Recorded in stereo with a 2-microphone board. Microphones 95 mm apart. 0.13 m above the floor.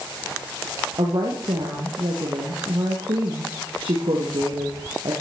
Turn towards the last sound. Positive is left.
turn(degrees=-70)  # may be behind; listen again after turning